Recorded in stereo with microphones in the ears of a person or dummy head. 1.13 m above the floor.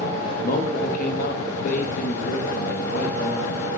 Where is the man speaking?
50° left (ahead or behind), 1.0 m.